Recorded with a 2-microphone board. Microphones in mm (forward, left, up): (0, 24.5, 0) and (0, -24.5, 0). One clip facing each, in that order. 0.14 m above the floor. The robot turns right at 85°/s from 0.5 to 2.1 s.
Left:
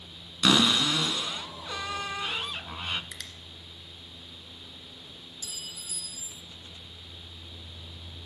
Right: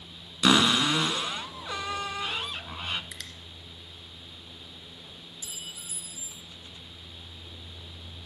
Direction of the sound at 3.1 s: 5° right (ahead or behind).